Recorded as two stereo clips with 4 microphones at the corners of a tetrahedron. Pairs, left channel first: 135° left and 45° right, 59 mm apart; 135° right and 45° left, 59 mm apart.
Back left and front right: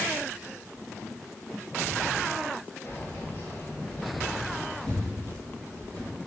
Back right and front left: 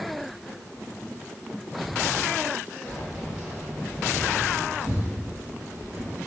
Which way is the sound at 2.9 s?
145° left.